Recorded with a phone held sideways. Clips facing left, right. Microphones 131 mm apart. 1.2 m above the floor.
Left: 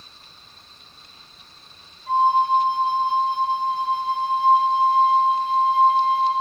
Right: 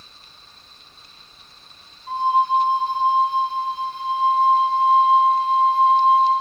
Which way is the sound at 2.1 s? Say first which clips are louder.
Left 1 dB; 85° left.